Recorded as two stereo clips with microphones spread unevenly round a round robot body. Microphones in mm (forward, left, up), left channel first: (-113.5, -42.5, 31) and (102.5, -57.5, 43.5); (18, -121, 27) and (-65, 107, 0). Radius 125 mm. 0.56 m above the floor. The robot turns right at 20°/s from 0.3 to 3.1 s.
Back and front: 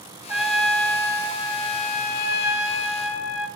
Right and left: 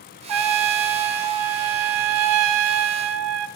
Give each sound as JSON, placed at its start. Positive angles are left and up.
{"t": 0.3, "sound": "a trumpet", "azimuth_deg": 80, "distance_m": 0.6}